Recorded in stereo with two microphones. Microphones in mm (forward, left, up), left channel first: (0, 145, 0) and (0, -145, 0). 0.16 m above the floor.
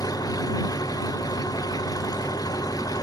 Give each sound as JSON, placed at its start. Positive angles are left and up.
{"t": 0.0, "sound": "an engine running", "side_deg": 10}